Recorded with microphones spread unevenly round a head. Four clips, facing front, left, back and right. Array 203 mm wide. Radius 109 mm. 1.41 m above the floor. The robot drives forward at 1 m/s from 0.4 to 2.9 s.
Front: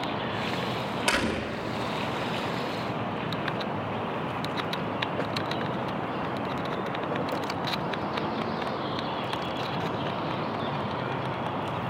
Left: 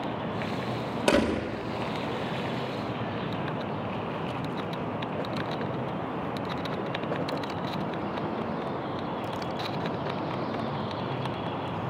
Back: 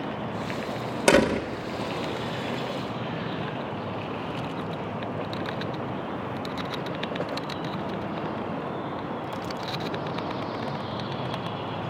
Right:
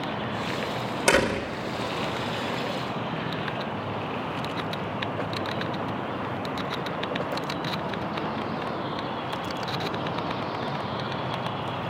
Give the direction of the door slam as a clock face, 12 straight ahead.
7 o'clock.